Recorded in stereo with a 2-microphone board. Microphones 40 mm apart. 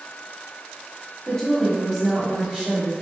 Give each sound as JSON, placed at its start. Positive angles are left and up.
{"t": 1.3, "sound": "a woman speaking", "side_deg": 15, "distance_m": 1.0}